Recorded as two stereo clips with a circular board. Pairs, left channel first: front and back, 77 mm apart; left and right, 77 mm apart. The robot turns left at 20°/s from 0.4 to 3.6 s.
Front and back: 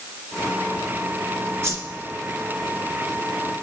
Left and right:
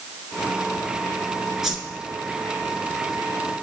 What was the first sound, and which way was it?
A whoosh, 170° right.